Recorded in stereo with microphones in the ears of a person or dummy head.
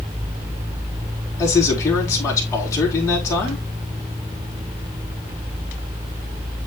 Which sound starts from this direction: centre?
A man speaking, at 1.4 s.